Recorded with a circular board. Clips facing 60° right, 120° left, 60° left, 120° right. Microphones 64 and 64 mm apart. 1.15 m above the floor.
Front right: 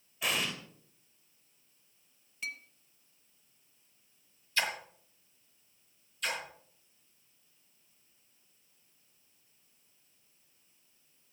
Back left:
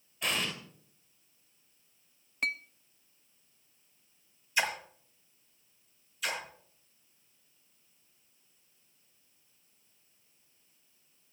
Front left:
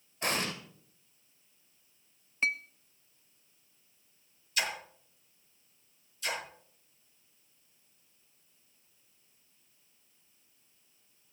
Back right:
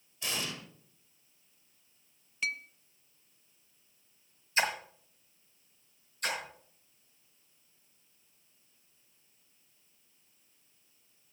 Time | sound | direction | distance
0.2 | an explosion | 25° left | 1.7 m
2.4 | a clink | 105° left | 0.6 m
4.6 | a splash | 170° right | 1.7 m
6.2 | a splash | 155° right | 5.5 m